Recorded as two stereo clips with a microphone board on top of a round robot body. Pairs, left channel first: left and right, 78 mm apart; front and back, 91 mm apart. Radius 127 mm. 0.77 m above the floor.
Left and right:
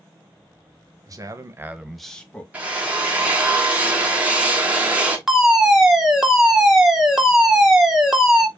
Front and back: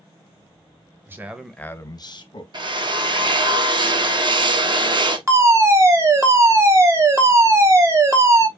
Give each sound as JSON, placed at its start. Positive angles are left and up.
{"t": 1.1, "sound": "a man speaking", "azimuth_deg": -120, "distance_m": 1.2}
{"t": 2.5, "sound": "a drill", "azimuth_deg": -160, "distance_m": 1.2}
{"t": 5.3, "sound": "a fire alarm", "azimuth_deg": -170, "distance_m": 1.5}